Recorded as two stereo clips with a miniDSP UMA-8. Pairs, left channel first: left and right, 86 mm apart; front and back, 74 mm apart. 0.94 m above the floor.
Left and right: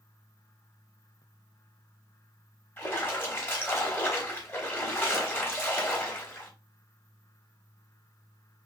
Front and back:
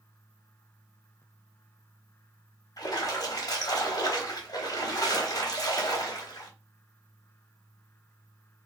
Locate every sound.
2.8 s a splash: 25° left, 1.0 m